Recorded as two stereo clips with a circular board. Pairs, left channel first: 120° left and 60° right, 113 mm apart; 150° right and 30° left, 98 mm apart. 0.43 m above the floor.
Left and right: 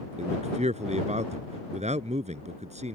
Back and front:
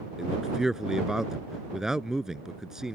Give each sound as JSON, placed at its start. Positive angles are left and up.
{"t": 0.2, "sound": "a man speaking", "azimuth_deg": -55}